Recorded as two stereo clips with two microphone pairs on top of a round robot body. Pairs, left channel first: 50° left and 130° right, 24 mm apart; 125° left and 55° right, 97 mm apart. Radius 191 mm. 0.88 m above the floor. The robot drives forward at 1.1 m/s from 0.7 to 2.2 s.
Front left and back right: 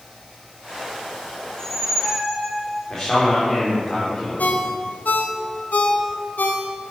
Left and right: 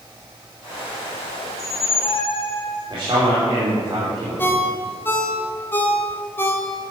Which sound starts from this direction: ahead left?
A ringtone, at 4.4 s.